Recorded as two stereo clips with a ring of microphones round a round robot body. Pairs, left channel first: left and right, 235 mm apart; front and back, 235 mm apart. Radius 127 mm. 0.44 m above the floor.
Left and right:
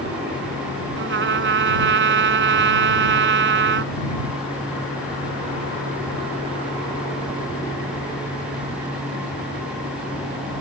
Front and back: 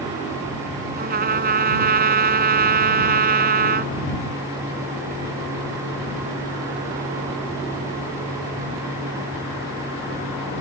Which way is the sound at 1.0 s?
130° right.